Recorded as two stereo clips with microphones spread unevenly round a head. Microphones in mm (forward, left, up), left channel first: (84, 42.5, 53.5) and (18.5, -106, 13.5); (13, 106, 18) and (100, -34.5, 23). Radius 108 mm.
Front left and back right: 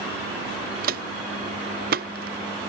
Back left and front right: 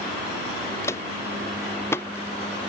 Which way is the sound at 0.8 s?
160° right.